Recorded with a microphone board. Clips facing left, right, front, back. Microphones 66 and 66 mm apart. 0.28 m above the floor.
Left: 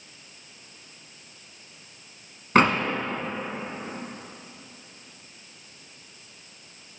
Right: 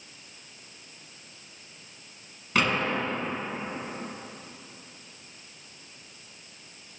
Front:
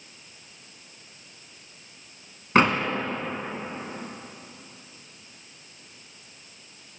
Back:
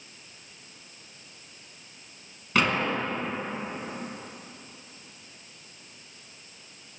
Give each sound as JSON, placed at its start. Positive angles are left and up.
{"t": 2.5, "sound": "a door slam", "azimuth_deg": 50, "distance_m": 1.7}